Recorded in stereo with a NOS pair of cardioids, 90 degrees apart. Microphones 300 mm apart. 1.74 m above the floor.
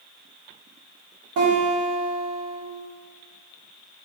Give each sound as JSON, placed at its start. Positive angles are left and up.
{"t": 1.4, "sound": "a guitar", "azimuth_deg": -70, "distance_m": 3.5}